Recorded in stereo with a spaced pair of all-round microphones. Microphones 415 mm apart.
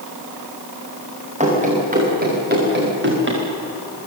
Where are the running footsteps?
15° right (ahead or behind), 9 m; by 3.4 s 30° right (ahead or behind), 9.5 m.